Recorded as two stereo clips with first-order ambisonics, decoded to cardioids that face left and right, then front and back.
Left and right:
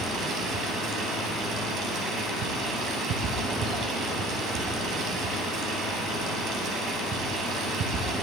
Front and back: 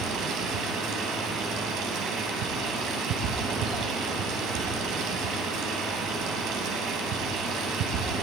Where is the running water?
140° right, 3.5 m.